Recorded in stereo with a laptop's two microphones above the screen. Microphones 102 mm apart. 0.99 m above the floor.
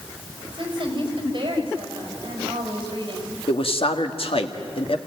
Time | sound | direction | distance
0.5 | a woman speaking | 50° right (ahead or behind) | 4.5 m
3.5 | a man speaking | 65° left (ahead or behind) | 1.8 m